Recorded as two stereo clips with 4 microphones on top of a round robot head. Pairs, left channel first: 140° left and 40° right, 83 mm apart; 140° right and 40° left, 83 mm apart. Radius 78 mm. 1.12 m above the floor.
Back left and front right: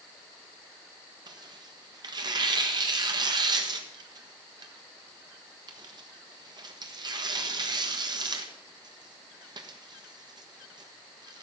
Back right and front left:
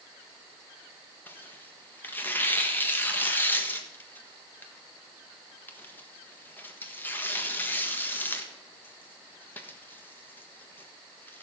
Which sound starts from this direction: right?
Tearing paper, at 1.3 s.